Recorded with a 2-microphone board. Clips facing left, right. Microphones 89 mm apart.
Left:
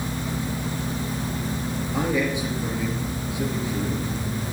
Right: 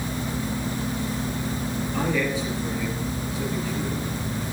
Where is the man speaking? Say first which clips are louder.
Left 2 dB; 20° left (ahead or behind), 3 m.